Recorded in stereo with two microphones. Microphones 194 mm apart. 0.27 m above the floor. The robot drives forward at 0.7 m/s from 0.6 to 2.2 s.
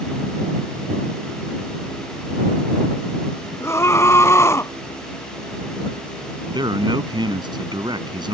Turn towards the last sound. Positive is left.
turn(degrees=-20)  # may be behind; listen again after turning